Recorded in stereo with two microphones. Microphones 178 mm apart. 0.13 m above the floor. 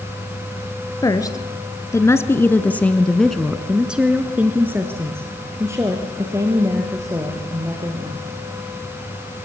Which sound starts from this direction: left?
A woman speaking, at 1.0 s.